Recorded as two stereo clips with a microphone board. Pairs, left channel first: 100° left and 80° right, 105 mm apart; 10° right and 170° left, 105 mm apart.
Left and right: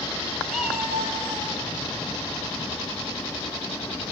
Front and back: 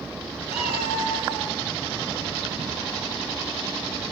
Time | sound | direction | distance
0.5 | a cat meowing | 5° left | 2.5 m